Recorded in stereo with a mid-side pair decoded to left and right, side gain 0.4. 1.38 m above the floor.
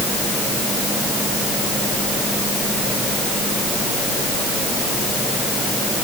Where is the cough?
No cough in this recording.